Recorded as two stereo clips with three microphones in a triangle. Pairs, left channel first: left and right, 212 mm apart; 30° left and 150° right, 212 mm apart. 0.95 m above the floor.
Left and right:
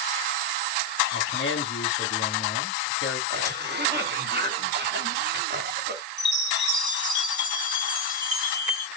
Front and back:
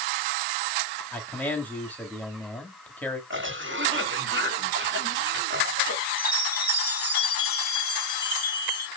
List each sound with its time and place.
1.1 s a man speaking: 110° left, 1.7 m
3.3 s a cough: 125° right, 2 m
6.2 s a chime: 160° left, 3 m